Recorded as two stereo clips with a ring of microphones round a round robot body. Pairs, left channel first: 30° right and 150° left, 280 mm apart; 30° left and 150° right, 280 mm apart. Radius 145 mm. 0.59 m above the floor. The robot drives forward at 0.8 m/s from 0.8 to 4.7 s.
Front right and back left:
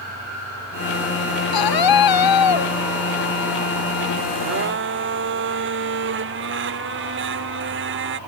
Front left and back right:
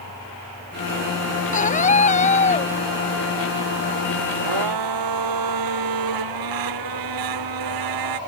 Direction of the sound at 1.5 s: 35° right.